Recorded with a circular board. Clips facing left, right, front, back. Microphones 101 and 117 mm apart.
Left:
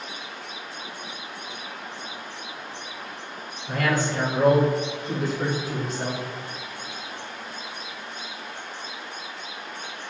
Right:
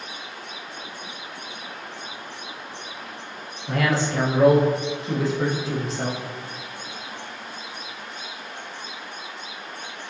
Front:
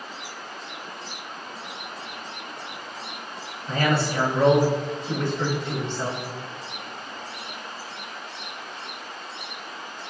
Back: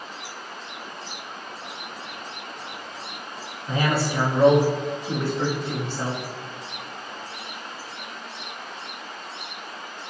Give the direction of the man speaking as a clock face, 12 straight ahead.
3 o'clock.